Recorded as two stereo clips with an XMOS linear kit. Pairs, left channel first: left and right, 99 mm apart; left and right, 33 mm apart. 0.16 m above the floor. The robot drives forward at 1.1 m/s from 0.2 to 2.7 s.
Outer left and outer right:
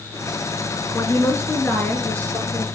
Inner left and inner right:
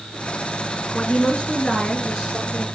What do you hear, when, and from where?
0.9 s a woman speaking: 30° left (ahead or behind), 1.5 m; by 2.6 s 15° left (ahead or behind), 3 m